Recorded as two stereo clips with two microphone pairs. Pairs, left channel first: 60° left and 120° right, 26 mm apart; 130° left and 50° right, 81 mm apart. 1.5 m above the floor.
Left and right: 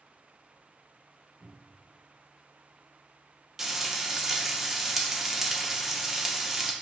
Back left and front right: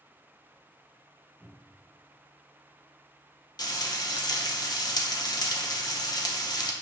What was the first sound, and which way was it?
A cupboard door, 145° right.